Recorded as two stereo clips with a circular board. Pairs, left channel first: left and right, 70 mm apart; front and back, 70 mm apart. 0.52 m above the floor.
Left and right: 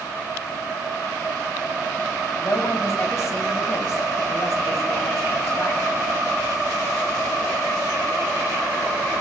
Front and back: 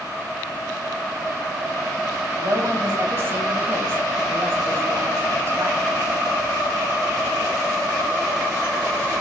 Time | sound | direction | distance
2.4 | a woman speaking | 130° left | 3 m